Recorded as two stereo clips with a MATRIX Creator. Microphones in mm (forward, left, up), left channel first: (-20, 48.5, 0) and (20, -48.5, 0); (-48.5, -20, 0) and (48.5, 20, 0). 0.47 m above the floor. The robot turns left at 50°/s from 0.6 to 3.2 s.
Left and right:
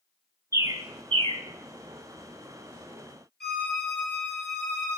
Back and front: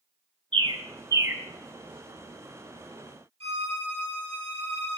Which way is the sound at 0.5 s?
10° right.